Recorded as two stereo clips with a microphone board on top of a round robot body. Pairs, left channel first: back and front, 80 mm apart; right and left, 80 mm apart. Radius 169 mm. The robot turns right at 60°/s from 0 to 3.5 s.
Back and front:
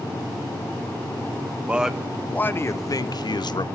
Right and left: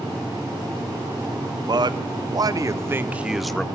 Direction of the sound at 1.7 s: 70° left.